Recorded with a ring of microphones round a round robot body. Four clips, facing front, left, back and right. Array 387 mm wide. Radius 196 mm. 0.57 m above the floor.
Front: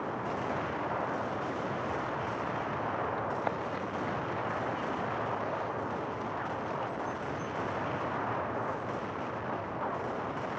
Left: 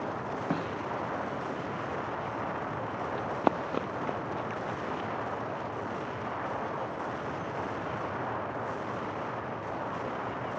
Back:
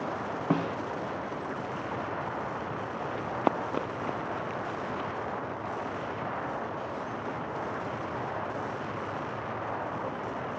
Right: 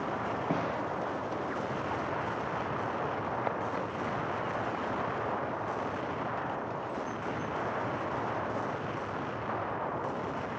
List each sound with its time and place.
0.5 s a snare drum: 175° left
3.1 s running footsteps: 130° left; by 5.1 s 140° left